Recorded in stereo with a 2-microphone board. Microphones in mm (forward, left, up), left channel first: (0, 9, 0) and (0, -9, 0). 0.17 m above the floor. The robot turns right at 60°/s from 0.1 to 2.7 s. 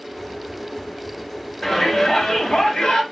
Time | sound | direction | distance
1.6 | a shout | 20° left | 3 m